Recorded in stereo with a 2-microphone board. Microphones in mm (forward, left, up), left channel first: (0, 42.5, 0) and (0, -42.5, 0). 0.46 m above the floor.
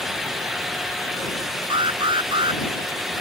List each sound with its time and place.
1.7 s an alarm: 75° right (ahead or behind)